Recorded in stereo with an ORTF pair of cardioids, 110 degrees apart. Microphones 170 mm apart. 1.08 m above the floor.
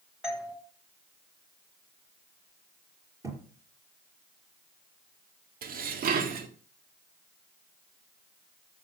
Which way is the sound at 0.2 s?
5° right.